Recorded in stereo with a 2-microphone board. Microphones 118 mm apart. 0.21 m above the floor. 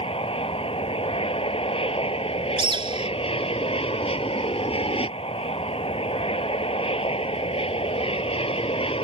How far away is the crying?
No crying in this recording.